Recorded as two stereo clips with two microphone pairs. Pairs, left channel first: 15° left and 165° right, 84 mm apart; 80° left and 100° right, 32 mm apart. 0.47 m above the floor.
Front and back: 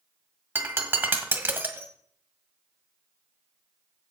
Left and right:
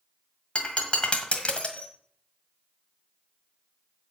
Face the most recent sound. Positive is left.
turn(degrees=130)